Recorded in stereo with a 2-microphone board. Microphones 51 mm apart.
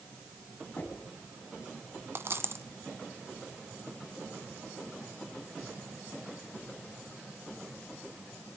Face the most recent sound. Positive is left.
turn(degrees=-55)  # may be behind; listen again after turning